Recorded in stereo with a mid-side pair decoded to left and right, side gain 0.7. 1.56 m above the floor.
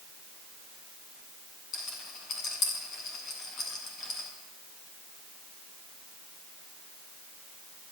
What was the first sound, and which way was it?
A rattle, 40° left.